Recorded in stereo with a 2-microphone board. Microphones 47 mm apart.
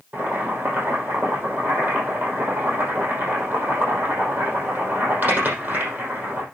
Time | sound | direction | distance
0.1 | boiling | 45° right (ahead or behind) | 5.5 m